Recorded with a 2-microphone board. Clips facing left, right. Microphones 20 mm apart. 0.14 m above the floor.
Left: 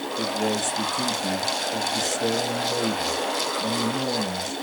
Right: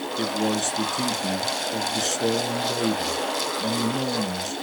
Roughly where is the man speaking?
Right.